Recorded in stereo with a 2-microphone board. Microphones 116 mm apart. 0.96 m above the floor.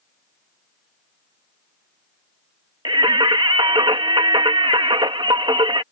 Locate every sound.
2.9 s singing: 45° right (ahead or behind)